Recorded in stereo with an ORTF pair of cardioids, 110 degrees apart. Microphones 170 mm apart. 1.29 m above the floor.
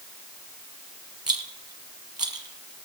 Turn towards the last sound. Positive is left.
turn(degrees=-25)